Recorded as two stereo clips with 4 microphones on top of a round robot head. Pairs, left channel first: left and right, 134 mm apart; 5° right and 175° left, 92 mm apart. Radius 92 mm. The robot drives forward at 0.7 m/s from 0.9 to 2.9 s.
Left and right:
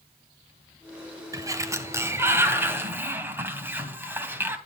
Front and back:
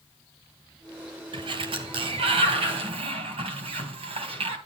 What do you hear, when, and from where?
1.3 s a sliding door: 155° right, 1.6 m; by 4.6 s 165° right, 2.5 m